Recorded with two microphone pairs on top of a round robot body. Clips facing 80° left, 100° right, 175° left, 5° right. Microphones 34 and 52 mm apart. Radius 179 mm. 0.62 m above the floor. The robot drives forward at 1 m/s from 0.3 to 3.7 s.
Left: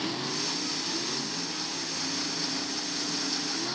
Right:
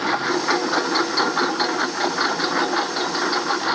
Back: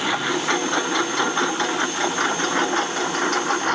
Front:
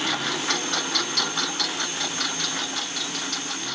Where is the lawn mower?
110° right; by 3.8 s 135° right.